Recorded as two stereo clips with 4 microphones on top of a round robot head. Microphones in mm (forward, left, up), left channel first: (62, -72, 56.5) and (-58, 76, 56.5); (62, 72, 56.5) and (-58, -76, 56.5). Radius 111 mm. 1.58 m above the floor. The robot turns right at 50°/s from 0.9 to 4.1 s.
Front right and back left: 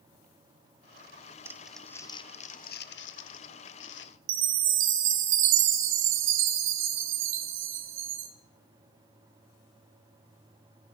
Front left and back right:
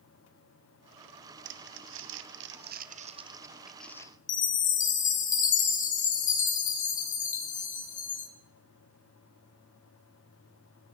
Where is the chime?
105° left, 1.7 m.